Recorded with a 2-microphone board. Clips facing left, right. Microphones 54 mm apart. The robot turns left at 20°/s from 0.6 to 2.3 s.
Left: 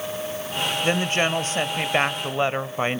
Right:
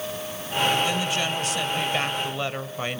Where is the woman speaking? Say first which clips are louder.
Left 3 dB; 40° left (ahead or behind), 1.1 m; by 3.0 s 30° left (ahead or behind), 1.1 m.